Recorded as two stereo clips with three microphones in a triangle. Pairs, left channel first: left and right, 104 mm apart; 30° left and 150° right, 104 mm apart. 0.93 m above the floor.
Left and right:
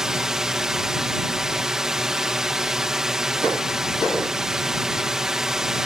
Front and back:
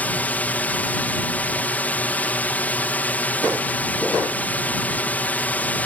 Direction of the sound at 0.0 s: 15° right.